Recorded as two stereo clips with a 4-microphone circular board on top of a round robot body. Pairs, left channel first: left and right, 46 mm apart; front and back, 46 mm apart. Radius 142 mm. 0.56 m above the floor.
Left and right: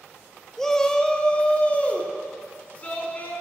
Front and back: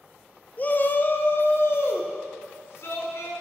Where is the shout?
10° left, 0.9 m; by 3.3 s 30° left, 2.5 m.